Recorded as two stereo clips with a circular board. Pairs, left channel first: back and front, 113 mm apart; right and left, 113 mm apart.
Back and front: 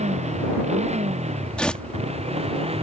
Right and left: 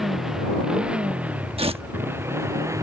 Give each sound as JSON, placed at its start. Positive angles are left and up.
{"t": 0.0, "sound": "a motorcycle", "azimuth_deg": 5}
{"t": 1.6, "sound": "tearing paper", "azimuth_deg": 100}